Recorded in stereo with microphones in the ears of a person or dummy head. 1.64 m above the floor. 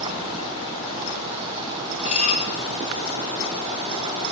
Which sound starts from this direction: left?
Dishes clattering, at 2.0 s.